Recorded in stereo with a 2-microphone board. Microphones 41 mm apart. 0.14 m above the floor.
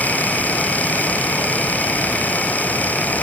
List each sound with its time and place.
Only background noise.